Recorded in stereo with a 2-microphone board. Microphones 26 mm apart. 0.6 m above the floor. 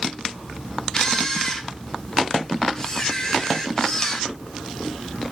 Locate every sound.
0.9 s a camera shutter: 20° left (ahead or behind), 2 m